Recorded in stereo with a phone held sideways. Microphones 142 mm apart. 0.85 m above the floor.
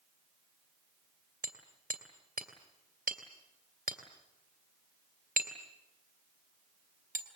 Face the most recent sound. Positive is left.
turn(degrees=-80)